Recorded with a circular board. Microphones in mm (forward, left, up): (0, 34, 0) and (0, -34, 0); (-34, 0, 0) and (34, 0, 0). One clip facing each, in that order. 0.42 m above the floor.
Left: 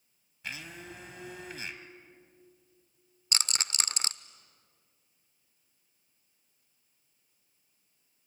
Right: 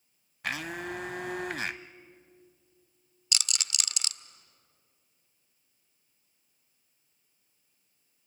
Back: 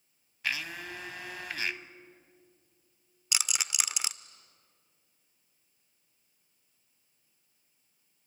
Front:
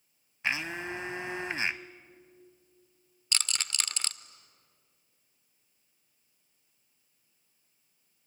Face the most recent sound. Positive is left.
turn(degrees=110)